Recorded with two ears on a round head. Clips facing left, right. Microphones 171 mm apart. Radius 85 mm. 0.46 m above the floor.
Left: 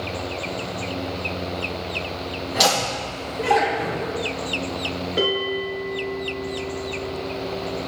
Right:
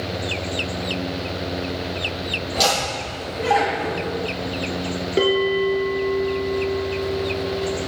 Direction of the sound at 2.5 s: 10° left (ahead or behind).